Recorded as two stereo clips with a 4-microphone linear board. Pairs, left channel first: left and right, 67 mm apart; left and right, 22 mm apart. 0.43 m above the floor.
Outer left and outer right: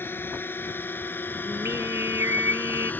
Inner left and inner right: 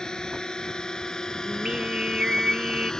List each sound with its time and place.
0.0 s a drone: 35° left (ahead or behind); by 3.0 s 25° left (ahead or behind)
1.5 s singing: 45° right (ahead or behind)